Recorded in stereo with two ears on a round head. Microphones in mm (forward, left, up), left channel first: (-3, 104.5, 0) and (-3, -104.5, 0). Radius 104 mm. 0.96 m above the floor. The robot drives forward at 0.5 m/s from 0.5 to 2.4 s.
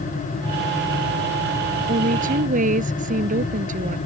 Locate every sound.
1.9 s a woman speaking: 35° right (ahead or behind)